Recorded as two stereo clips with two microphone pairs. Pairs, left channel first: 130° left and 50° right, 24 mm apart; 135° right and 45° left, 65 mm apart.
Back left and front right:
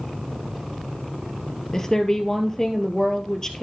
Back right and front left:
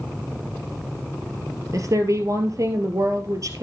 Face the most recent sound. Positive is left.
turn(degrees=60)